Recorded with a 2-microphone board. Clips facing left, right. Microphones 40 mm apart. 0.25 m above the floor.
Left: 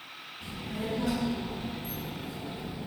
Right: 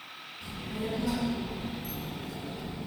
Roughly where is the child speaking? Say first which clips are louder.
Even; left.